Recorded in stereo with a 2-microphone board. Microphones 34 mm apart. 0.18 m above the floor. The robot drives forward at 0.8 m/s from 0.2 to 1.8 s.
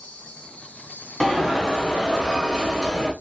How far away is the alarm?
About 0.9 m.